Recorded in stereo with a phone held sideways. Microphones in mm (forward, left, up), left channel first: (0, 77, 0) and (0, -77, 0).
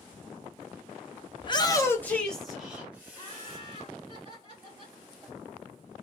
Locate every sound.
1.4 s a shout: 35° left (ahead or behind), 0.7 m; by 3.6 s 15° right (ahead or behind), 1.4 m
3.1 s laughter: 35° right (ahead or behind), 2 m